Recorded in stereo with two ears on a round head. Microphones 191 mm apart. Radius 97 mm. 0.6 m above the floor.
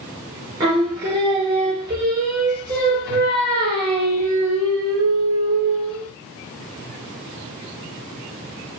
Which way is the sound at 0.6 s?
20° right (ahead or behind).